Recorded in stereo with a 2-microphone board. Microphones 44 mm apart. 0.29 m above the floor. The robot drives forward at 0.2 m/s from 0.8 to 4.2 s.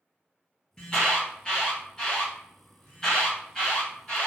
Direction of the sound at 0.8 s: 20° left (ahead or behind).